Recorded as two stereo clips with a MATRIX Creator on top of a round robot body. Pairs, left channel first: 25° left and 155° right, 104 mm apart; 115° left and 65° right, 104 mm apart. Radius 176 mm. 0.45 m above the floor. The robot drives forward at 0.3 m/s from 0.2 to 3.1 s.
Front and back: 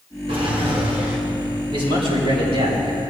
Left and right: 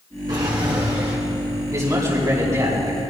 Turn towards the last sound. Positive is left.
turn(degrees=-125)